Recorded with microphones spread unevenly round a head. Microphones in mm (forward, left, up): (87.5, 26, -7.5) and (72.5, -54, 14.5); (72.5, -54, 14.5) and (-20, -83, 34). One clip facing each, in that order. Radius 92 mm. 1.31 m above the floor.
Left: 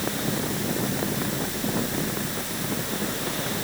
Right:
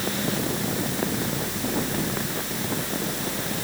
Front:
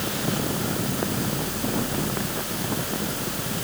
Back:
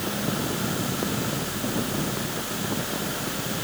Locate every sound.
Only background noise.